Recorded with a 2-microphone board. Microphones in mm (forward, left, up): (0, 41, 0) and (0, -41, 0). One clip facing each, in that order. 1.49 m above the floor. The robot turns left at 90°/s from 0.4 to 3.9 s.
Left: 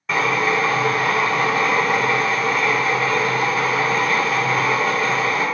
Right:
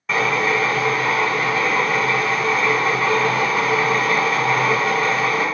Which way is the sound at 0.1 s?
175° right.